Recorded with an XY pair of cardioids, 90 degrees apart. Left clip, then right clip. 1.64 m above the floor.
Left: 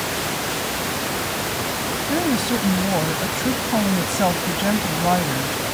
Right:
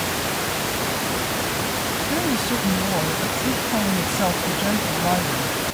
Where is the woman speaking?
25° left.